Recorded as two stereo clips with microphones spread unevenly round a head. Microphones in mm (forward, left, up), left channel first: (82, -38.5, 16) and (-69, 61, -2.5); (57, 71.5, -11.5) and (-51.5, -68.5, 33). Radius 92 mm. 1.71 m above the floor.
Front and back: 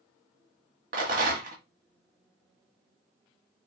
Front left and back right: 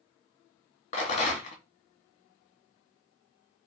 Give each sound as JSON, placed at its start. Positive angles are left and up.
{"t": 0.9, "sound": "a rattle", "azimuth_deg": 110, "distance_m": 1.5}